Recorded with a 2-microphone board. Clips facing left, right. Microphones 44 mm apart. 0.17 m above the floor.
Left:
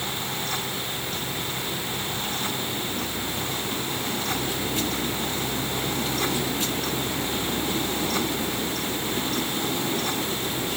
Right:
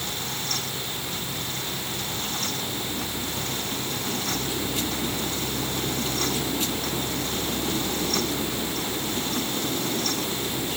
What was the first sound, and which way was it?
Only background noise.